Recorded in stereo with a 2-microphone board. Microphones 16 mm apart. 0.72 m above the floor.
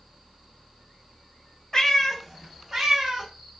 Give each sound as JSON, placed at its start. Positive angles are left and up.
{"t": 1.7, "sound": "a cat meowing", "side_deg": 30, "distance_m": 0.7}